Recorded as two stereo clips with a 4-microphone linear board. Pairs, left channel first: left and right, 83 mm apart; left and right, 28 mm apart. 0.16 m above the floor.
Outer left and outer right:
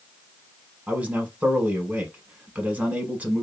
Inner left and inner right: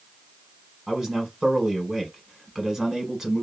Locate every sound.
0.9 s a man speaking: 20° right (ahead or behind), 1.0 m